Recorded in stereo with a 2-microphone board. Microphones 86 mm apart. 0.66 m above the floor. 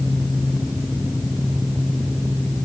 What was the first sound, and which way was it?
Only background noise.